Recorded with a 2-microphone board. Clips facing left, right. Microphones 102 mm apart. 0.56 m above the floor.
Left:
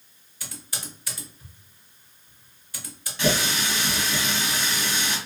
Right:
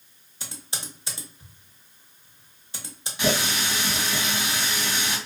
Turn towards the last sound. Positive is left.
turn(degrees=-10)  # may be behind; listen again after turning